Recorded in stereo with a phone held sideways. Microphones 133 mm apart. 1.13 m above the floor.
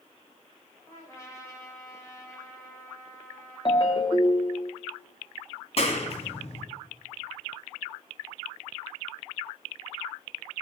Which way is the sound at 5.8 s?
50° left (ahead or behind).